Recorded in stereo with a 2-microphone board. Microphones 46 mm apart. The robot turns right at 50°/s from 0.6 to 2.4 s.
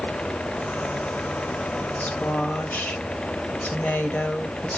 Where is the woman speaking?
30° left (ahead or behind), 1.3 m; by 4.8 s 40° left (ahead or behind), 1.3 m.